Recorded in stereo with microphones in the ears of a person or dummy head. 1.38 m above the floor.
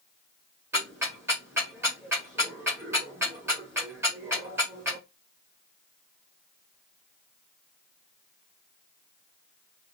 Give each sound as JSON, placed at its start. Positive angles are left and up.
{"t": 0.7, "sound": "ticking", "side_deg": -10, "distance_m": 1.2}